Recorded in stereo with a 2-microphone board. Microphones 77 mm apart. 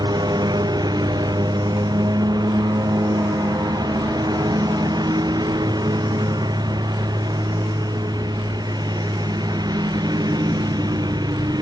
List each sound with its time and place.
0.0 s a lawn mower: 60° right (ahead or behind)